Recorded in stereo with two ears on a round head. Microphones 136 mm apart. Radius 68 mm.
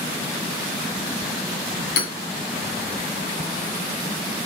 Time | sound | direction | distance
2.0 | hammering | 70° left (ahead or behind) | 2.5 m